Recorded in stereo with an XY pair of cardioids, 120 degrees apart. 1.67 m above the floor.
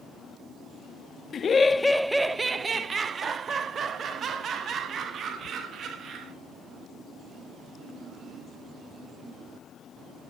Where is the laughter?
45° left, 0.5 m; by 6.3 s 55° right, 3 m.